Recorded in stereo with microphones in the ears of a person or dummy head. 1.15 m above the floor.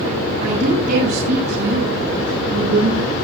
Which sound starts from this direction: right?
A woman speaking, at 0.4 s.